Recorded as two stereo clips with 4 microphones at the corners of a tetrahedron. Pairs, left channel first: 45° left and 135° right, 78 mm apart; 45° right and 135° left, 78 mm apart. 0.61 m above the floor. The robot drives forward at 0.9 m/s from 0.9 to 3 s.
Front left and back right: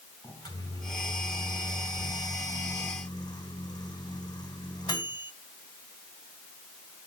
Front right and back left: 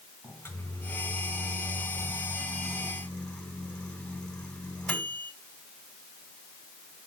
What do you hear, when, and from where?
0.2 s a microwave: 15° left, 4 m; by 5.3 s 30° left, 2 m